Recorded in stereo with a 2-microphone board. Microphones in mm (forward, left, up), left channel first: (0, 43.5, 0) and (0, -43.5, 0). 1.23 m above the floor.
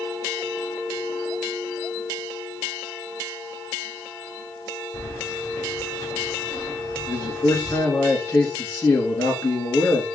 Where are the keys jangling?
35° left (ahead or behind), 1.9 m.